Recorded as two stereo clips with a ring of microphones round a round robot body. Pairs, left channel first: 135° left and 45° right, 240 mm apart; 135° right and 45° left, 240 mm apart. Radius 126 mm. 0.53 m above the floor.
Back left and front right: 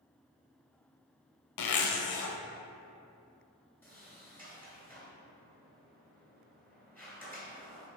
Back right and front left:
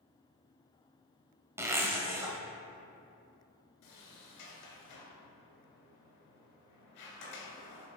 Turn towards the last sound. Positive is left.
turn(degrees=-145)